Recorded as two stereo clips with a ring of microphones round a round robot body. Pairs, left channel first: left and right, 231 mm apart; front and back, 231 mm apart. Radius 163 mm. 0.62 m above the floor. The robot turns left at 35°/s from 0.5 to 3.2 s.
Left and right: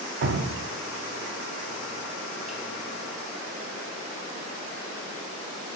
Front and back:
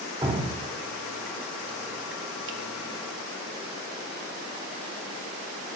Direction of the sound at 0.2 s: 110° right.